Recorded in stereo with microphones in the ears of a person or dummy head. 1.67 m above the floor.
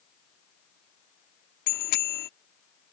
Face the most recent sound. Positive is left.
turn(degrees=55)  # may be behind; listen again after turning